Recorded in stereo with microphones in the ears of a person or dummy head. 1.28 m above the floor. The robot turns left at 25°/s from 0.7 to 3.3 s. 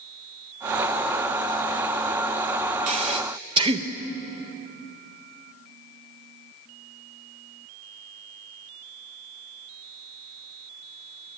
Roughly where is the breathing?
Right.